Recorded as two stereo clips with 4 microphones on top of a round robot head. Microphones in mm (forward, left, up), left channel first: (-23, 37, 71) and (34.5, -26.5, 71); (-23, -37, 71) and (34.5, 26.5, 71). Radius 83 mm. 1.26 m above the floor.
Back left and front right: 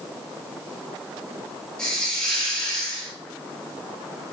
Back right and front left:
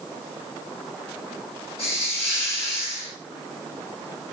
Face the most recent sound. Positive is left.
turn(degrees=-145)